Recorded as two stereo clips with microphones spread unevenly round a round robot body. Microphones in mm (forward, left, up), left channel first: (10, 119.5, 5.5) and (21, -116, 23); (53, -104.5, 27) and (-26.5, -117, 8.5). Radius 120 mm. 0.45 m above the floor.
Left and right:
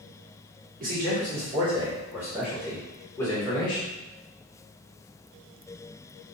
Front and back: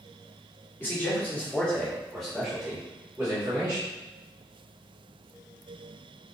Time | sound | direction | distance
0.8 | a man speaking | 60° right | 1.3 m